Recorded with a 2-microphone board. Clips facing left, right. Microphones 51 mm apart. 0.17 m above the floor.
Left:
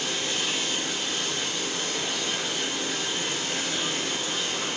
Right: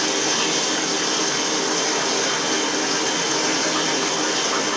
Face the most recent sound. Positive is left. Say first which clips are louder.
# right 7 dB
turn(degrees=-65)  # may be behind; listen again after turning